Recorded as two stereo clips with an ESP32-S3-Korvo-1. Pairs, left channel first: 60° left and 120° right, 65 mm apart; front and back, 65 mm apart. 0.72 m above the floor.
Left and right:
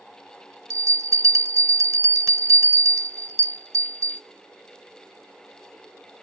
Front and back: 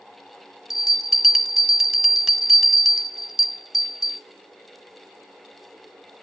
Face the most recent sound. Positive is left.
turn(degrees=-95)